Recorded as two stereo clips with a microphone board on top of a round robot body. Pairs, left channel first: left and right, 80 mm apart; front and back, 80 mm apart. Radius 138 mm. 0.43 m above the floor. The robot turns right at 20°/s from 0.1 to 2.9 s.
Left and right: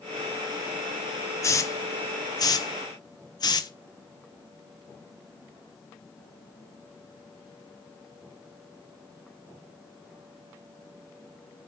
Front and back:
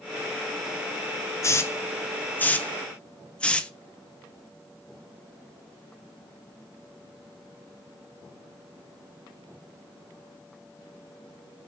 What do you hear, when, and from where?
1.4 s a hiss: 45° left, 0.5 m; by 3.7 s 75° left, 0.5 m